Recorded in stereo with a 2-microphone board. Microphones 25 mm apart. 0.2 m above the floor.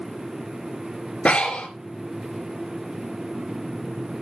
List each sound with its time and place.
1.2 s breathing: 65° left (ahead or behind), 3 m